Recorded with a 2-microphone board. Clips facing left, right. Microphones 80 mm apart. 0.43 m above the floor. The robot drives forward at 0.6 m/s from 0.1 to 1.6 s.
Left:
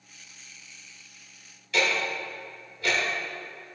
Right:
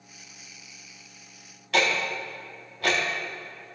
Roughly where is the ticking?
Right.